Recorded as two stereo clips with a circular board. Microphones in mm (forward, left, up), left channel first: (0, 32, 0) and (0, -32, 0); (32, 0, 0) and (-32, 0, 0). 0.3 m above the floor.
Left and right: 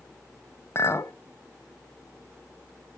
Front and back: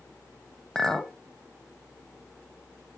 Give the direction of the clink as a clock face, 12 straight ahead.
9 o'clock.